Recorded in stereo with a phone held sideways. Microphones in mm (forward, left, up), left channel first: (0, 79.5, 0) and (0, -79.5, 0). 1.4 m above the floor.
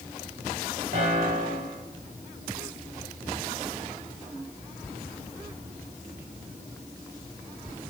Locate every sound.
0.9 s a piano: 70° right (ahead or behind), 4 m